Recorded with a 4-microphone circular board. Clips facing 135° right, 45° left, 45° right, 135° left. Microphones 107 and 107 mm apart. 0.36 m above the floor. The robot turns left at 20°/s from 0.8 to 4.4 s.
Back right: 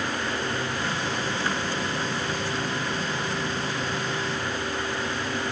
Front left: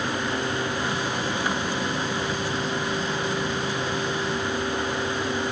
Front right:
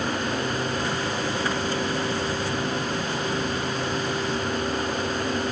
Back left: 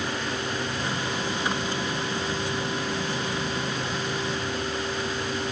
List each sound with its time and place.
Only background noise.